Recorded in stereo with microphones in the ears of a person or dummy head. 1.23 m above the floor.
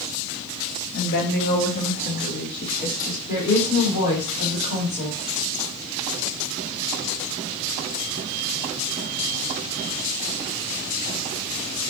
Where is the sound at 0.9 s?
55° left (ahead or behind), 1.1 m; by 3.2 s 40° left (ahead or behind), 2.5 m.